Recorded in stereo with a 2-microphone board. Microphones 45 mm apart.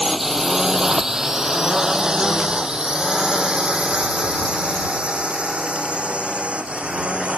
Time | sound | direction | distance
0.0 | a drone | 5° right (ahead or behind) | ?